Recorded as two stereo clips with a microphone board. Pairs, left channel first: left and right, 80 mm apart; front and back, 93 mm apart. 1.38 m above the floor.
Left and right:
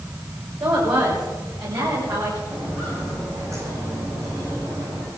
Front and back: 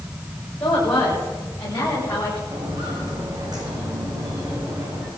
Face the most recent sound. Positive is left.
turn(degrees=-125)